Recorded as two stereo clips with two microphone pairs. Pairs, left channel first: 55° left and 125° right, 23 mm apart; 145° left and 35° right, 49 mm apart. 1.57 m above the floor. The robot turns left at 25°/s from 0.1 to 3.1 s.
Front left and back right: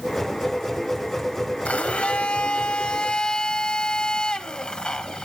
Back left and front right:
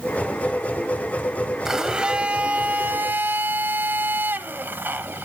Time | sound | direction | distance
1.6 | a blender | 40° left | 1.1 m